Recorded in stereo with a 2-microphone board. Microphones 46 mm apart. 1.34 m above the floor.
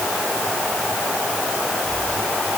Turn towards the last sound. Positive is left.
No sound to turn to.